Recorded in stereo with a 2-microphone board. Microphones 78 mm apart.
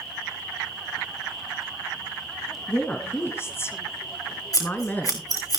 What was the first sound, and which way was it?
A woman speaking, 20° left (ahead or behind).